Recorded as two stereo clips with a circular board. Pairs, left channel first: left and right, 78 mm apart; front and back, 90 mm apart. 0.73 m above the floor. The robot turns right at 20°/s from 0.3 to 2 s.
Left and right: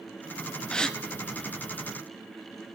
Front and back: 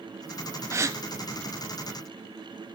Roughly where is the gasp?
Behind.